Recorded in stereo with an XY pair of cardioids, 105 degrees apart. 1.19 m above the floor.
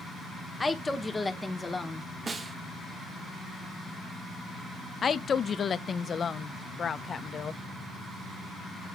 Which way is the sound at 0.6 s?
20° left.